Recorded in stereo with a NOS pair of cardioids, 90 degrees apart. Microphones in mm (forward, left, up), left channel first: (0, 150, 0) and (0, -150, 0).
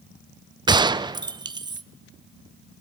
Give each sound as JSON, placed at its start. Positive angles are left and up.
{"t": 0.7, "sound": "a gunshot", "azimuth_deg": -15, "distance_m": 0.6}